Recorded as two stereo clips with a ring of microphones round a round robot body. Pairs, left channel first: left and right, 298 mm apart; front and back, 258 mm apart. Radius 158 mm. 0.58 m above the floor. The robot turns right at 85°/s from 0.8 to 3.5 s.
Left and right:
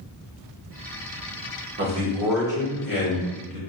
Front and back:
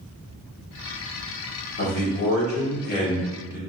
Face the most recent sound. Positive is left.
turn(degrees=100)